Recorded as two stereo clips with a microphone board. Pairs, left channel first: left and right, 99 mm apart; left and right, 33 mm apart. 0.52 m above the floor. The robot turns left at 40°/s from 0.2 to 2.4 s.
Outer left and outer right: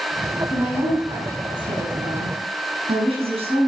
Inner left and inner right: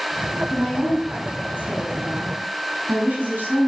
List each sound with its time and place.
0.5 s a woman speaking: 10° right, 5.5 m; by 3.7 s 90° right, 5.5 m